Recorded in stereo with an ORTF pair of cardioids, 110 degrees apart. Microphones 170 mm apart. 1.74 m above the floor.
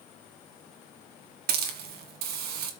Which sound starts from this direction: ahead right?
A hiss, at 1.5 s.